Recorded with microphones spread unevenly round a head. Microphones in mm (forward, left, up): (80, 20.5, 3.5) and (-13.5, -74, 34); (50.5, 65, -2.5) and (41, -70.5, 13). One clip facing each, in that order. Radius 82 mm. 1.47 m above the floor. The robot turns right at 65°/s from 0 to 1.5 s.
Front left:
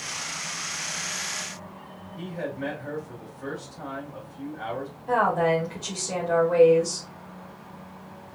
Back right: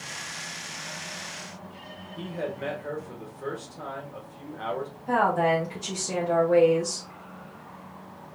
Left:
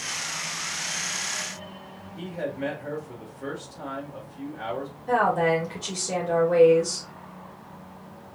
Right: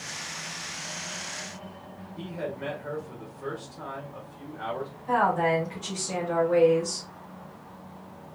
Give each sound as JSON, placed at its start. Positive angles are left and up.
{"t": 2.2, "sound": "a man speaking", "azimuth_deg": 160, "distance_m": 1.4}
{"t": 5.1, "sound": "a woman speaking", "azimuth_deg": 145, "distance_m": 1.9}